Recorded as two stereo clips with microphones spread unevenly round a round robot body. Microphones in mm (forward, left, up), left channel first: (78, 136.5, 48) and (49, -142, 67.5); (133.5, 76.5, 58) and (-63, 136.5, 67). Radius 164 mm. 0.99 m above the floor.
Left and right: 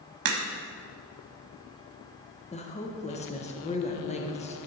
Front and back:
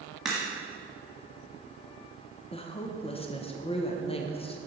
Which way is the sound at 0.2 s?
110° right.